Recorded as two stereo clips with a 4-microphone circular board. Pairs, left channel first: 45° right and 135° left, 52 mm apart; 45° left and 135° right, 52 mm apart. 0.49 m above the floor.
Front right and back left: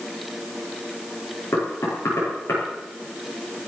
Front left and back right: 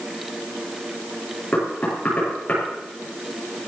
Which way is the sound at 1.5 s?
20° right.